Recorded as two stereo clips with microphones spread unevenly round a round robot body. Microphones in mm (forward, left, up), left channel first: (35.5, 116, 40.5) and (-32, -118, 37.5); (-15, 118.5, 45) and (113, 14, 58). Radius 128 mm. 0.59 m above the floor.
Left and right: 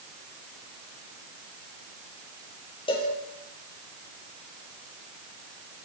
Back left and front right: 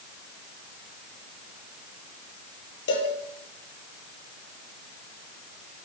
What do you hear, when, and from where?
2.9 s a cowbell: 145° left, 5.5 m